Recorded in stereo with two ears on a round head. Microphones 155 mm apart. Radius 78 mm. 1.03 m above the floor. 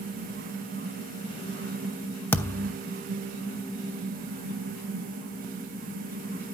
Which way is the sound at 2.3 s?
15° left (ahead or behind).